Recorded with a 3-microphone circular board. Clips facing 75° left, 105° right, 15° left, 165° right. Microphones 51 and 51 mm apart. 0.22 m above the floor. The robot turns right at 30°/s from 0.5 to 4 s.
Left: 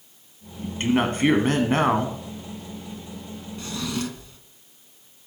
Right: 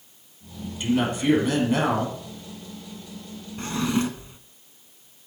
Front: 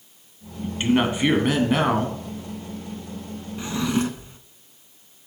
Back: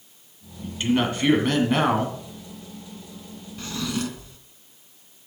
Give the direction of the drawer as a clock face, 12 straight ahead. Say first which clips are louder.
Right 5 dB, front 5 dB; 2 o'clock.